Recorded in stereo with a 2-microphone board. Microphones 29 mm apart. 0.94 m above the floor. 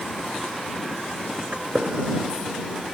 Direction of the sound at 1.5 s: 45° right (ahead or behind).